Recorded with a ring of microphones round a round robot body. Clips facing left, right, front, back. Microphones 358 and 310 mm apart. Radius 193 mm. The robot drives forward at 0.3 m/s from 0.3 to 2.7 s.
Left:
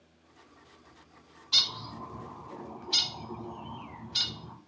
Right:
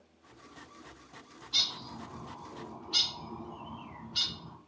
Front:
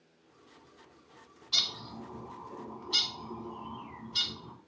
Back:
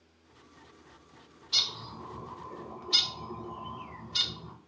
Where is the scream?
I don't hear a scream.